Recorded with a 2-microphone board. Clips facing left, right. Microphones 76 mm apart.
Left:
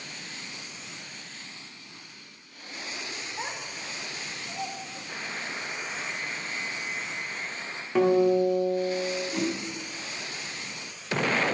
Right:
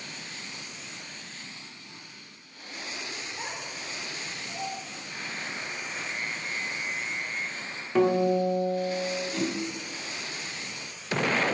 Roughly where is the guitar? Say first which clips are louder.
Left 2 dB; centre.